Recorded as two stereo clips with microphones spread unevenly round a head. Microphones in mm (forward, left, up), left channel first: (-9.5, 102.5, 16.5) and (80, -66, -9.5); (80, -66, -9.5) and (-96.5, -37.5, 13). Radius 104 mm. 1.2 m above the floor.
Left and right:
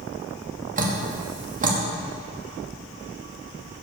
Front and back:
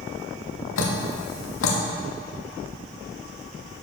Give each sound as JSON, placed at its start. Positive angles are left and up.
{"t": 0.8, "sound": "dripping", "azimuth_deg": -10, "distance_m": 1.4}